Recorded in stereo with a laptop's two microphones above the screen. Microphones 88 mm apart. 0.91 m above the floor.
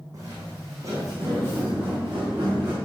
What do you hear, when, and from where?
0.1 s footsteps: 40° right (ahead or behind), 3 m; by 2.8 s 25° right (ahead or behind), 5 m